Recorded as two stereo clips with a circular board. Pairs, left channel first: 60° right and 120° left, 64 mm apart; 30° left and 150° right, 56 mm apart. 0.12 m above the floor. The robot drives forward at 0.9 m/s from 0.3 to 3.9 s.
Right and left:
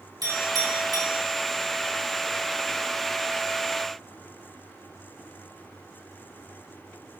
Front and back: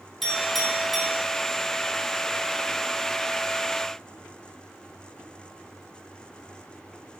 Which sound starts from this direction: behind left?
A clink, at 0.2 s.